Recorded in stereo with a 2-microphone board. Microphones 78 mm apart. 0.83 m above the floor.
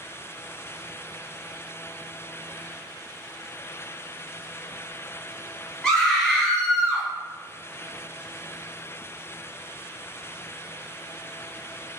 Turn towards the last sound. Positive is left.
turn(degrees=5)  # may be behind; listen again after turning